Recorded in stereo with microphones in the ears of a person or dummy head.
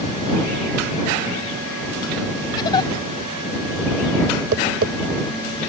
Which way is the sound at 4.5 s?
50° right (ahead or behind).